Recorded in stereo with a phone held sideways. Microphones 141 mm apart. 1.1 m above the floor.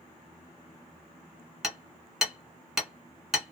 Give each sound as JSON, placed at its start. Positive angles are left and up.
{"t": 1.6, "sound": "hammering", "side_deg": -5, "distance_m": 1.1}